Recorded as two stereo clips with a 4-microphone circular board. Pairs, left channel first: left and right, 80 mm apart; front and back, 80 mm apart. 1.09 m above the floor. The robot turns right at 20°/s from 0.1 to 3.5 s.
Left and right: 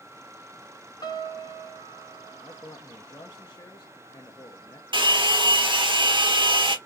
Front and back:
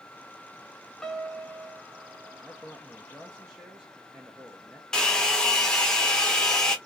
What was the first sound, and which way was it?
A piano, 80° left.